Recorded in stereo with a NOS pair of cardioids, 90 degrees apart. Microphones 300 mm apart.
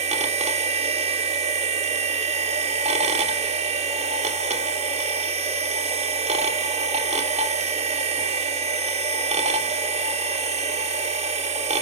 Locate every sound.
0.0 s a machine running: 20° right, 2.5 m